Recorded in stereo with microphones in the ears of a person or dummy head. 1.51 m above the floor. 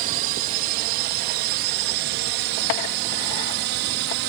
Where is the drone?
45° right (ahead or behind); by 4.3 s 60° right (ahead or behind).